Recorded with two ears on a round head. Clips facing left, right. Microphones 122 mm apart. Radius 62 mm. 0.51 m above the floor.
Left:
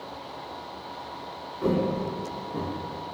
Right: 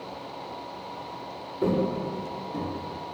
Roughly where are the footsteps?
Right.